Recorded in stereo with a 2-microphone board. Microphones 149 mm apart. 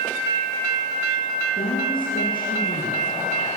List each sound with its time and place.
1.6 s a woman speaking: 75° left (ahead or behind), 8 m